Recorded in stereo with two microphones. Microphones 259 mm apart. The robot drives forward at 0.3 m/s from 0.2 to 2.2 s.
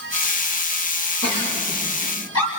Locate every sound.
1.2 s a giggle: 80° left, 6 m; by 2.5 s 75° left (ahead or behind), 6 m